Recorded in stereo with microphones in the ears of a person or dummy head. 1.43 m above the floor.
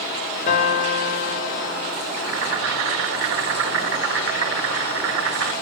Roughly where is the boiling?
Right.